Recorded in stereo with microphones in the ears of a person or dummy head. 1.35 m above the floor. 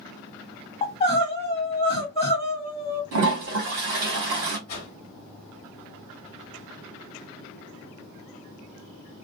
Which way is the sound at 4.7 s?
25° left (ahead or behind).